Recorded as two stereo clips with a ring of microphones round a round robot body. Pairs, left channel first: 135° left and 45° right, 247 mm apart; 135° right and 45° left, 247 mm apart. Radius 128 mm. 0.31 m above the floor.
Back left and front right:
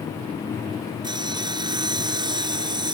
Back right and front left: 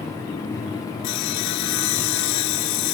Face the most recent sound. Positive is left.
turn(degrees=-120)